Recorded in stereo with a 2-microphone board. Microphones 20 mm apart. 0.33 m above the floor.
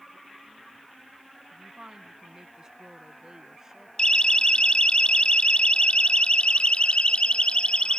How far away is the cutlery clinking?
No cutlery clinking in this recording.